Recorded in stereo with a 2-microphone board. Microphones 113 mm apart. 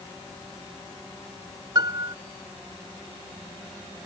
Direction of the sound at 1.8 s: 40° right (ahead or behind).